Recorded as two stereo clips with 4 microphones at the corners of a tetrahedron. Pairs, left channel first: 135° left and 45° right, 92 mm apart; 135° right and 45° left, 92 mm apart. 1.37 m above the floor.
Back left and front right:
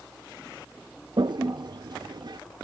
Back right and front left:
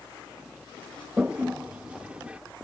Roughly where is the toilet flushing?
Ahead right.